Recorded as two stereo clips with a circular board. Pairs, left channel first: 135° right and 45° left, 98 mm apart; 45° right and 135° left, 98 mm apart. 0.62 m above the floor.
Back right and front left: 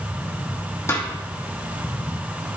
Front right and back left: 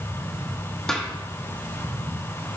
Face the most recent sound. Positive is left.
turn(degrees=-120)